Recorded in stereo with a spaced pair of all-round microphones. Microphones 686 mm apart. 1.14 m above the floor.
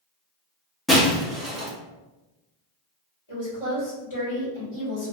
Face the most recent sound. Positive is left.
turn(degrees=45)  # may be behind; listen again after turning